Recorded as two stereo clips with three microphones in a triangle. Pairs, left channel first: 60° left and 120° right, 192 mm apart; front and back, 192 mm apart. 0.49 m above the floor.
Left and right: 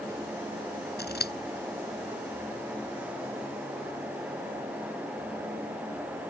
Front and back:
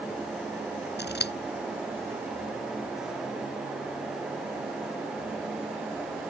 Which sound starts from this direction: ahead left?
Scissors, at 1.0 s.